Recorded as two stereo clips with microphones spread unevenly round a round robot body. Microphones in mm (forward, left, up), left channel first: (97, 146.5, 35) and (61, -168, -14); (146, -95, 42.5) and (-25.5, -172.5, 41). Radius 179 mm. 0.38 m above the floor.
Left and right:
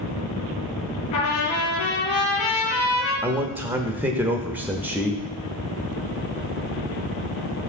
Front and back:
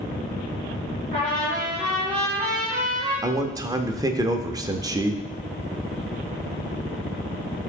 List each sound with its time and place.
1.1 s a trumpet: 130° left, 5 m
3.2 s a man speaking: 140° right, 0.8 m